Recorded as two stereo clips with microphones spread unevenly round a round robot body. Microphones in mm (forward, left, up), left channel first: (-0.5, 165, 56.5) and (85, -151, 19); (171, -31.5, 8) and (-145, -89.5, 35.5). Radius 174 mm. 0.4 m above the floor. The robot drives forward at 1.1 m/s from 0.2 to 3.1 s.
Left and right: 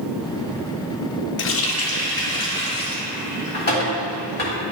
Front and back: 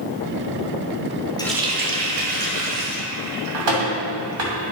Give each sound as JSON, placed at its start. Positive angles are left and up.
{"t": 1.4, "sound": "a running tap", "azimuth_deg": 70, "distance_m": 0.6}